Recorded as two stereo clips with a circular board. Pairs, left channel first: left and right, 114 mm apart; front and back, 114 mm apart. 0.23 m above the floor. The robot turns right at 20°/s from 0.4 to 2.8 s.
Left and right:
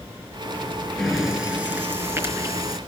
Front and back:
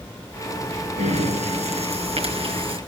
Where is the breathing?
175° right, 4.5 m; by 2.8 s 140° right, 4.5 m.